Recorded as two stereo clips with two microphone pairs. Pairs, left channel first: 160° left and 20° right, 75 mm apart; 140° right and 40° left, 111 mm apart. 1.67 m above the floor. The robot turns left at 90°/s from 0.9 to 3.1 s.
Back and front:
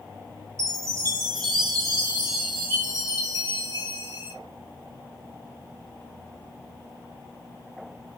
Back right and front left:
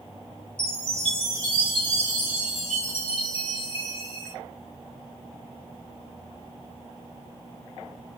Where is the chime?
25° left, 5 m; by 4.3 s 175° right, 5 m.